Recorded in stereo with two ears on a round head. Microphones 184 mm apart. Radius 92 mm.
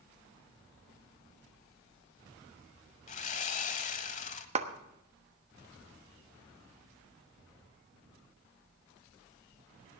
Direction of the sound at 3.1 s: 35° left (ahead or behind).